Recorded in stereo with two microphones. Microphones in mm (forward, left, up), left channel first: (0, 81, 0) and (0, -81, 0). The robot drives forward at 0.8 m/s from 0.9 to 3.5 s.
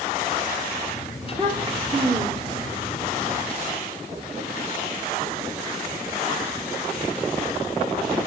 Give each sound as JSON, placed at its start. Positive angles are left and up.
{"t": 1.2, "sound": "a child speaking", "side_deg": -30, "distance_m": 8.0}